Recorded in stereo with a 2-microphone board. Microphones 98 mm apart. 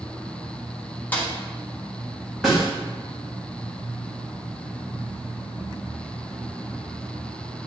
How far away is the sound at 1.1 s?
About 1.4 m.